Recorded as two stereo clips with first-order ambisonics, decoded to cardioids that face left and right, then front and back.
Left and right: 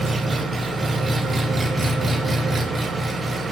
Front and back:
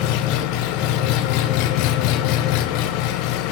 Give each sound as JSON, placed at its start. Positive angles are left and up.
{"t": 0.0, "sound": "an engine running", "azimuth_deg": -15, "distance_m": 0.8}